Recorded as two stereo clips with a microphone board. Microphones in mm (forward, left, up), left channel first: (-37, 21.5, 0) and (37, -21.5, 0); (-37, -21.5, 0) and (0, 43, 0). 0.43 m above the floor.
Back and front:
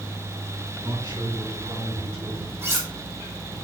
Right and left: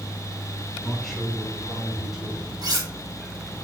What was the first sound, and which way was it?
A man speaking, 40° right.